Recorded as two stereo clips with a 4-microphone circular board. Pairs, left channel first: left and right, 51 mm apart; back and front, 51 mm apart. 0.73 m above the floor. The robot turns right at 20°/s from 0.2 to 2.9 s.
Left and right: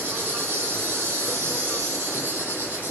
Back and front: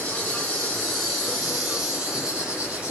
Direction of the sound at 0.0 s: 115° right.